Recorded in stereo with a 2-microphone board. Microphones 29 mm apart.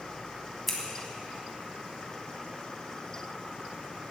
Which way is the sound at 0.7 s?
5° left (ahead or behind).